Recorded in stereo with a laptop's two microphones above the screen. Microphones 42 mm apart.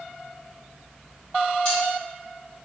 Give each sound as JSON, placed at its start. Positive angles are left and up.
{"t": 1.6, "sound": "cutlery clinking", "side_deg": 30, "distance_m": 1.5}